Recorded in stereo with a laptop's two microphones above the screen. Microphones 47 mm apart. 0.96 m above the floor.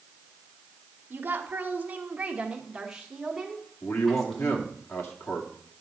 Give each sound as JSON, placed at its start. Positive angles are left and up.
{"t": 1.1, "sound": "a woman speaking", "side_deg": -50, "distance_m": 1.1}
{"t": 3.8, "sound": "a man speaking", "side_deg": 60, "distance_m": 2.0}